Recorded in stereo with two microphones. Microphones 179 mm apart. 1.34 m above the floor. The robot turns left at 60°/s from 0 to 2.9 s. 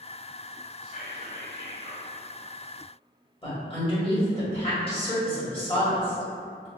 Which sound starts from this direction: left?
A woman speaking, at 3.4 s.